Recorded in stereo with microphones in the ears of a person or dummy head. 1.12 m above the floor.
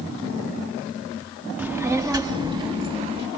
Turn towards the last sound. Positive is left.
turn(degrees=-25)  # may be behind; listen again after turning